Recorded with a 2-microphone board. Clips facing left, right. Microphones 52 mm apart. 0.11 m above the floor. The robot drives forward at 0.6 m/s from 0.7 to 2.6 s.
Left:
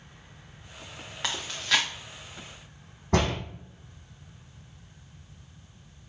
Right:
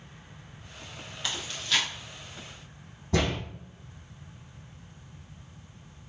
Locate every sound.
1.2 s chewing: 85° left, 2.5 m; by 1.9 s 80° left, 2.5 m
3.1 s a door slam: 65° left (ahead or behind), 4 m